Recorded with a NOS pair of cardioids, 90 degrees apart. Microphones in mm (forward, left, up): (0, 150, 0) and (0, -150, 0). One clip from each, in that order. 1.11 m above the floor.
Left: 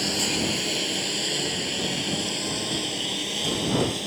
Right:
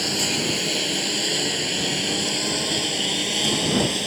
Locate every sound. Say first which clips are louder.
0.0 s a lawn mower: right 2 dB; 10° right; by 4.1 s 40° right